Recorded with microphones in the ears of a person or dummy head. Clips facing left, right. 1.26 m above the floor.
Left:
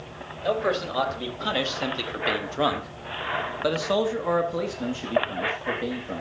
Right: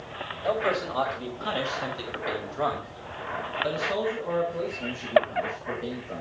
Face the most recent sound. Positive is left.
turn(degrees=55)  # may be behind; listen again after turning